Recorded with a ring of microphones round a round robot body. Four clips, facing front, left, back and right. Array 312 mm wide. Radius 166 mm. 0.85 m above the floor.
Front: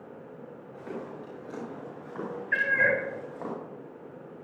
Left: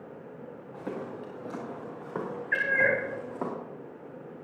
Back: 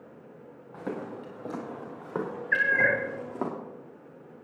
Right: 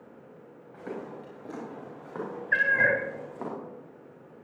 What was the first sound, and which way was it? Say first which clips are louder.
Footsteps: left 1 dB, back 4 dB; 165° left.